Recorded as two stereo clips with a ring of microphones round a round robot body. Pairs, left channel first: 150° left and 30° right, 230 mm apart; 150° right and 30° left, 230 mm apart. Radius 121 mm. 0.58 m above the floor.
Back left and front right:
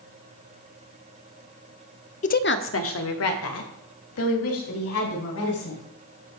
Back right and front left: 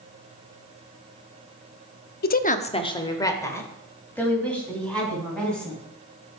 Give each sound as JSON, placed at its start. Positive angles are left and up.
{"t": 2.2, "sound": "a woman speaking", "azimuth_deg": -165, "distance_m": 0.8}